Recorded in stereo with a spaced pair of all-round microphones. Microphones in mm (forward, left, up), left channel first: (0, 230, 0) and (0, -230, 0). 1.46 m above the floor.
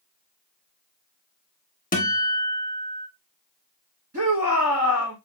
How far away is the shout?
About 2.5 m.